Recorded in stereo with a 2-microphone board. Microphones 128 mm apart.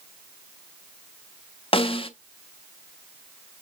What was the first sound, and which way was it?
A snare drum, 45° left (ahead or behind).